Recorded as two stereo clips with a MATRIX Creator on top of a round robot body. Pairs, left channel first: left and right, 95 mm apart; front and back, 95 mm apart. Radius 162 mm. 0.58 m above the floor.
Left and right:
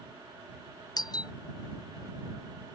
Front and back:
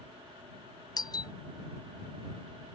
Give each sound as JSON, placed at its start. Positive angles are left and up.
{"t": 1.0, "sound": "a doorbell", "azimuth_deg": 45}